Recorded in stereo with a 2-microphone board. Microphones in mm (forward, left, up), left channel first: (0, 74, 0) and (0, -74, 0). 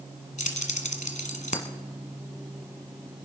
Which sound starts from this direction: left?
Keys jangling, at 0.4 s.